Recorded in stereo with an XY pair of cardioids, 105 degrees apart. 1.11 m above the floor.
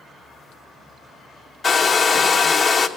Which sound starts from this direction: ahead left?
A hair dryer, at 1.6 s.